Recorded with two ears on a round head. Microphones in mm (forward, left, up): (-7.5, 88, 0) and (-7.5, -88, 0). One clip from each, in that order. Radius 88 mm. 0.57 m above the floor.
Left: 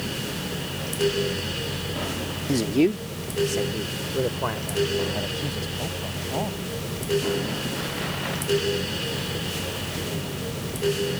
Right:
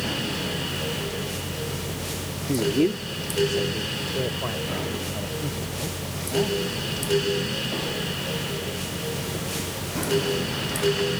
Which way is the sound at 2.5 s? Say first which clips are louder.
Even; 20° left (ahead or behind).